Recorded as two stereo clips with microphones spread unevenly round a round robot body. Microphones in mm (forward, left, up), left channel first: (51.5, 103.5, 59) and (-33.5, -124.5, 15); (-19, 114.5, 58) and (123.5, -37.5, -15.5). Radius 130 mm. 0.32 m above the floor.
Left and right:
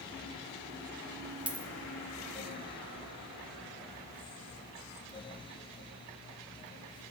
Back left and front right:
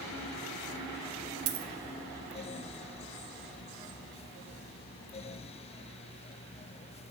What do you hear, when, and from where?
1.5 s a dropped coin: 30° right, 0.8 m